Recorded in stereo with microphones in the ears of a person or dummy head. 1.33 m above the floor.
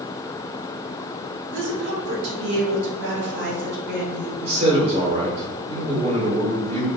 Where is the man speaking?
35° right (ahead or behind), 1.6 m.